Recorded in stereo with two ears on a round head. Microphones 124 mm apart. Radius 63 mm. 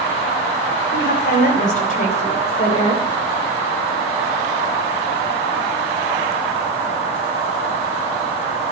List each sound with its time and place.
0.9 s a woman speaking: 75° left (ahead or behind), 4.5 m; by 3.0 s 30° left (ahead or behind), 3 m